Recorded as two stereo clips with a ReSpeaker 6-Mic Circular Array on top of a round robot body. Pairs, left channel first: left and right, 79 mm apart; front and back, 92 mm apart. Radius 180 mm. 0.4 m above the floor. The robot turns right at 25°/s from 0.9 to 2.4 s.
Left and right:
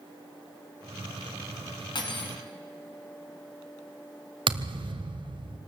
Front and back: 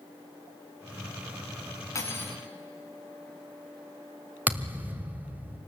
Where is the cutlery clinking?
60° left, 3.5 m; by 2.4 s 70° left, 3.5 m.